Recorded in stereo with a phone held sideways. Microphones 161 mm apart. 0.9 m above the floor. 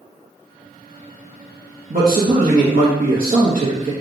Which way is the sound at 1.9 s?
55° right (ahead or behind).